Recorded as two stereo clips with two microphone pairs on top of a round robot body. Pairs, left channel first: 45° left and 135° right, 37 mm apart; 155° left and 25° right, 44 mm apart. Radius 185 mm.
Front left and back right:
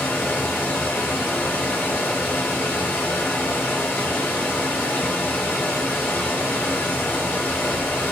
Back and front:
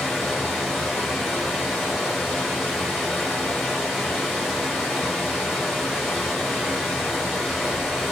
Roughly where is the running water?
Ahead left.